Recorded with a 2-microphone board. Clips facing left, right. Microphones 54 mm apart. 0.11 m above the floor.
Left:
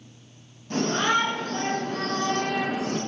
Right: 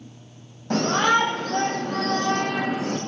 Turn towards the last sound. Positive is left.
turn(degrees=-65)  # may be behind; listen again after turning